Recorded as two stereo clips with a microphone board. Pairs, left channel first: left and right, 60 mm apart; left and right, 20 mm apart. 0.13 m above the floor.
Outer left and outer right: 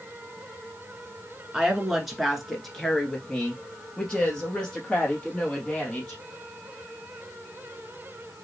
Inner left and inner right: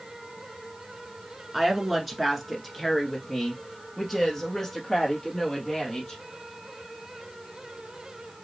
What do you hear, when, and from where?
1.5 s a woman speaking: 10° right (ahead or behind), 1.2 m; by 6.2 s 20° left (ahead or behind), 3 m